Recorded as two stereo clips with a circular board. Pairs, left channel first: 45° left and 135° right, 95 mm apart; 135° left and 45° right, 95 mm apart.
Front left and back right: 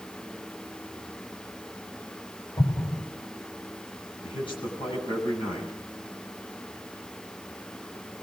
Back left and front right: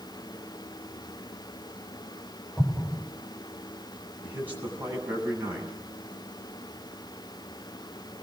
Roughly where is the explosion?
Ahead left.